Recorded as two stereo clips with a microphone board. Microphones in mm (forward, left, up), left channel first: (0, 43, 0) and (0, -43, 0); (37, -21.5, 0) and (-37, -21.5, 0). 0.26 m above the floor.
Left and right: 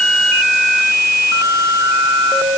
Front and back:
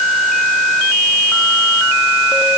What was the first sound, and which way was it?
Only background noise.